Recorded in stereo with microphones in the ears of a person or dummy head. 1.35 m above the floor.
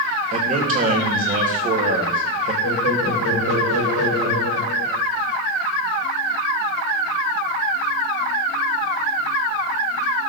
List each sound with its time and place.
0.3 s a man speaking: 35° right (ahead or behind), 1.4 m
2.6 s laughter: 65° right (ahead or behind), 1.9 m